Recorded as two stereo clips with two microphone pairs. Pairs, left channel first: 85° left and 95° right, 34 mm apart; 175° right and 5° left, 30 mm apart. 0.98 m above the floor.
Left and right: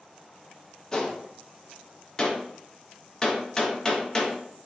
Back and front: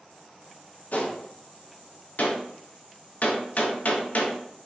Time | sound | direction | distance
0.9 | a gunshot | 150° left | 0.5 m